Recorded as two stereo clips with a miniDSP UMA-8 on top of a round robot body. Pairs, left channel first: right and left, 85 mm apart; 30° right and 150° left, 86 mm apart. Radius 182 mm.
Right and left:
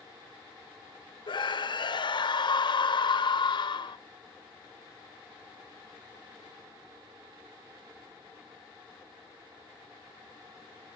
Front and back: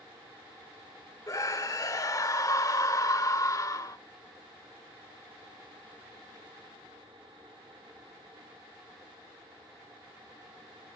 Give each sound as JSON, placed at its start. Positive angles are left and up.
{"t": 1.3, "sound": "a scream", "azimuth_deg": -75, "distance_m": 1.8}